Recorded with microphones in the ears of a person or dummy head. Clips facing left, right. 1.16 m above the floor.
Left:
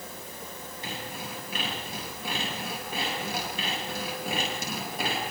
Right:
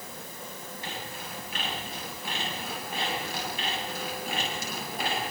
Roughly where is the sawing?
Left.